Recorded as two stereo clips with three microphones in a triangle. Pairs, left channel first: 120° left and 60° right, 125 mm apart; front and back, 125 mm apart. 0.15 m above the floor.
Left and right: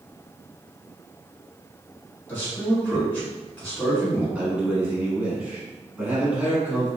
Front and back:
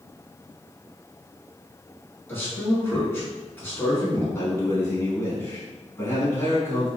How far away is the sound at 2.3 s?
About 1.7 m.